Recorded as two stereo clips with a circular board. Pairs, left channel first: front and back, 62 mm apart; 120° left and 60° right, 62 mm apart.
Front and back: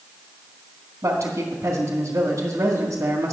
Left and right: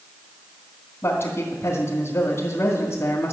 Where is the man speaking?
155° left, 1.9 m.